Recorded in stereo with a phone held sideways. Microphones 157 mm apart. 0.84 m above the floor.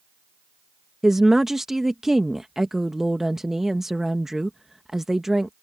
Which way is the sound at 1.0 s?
Centre (ahead or behind).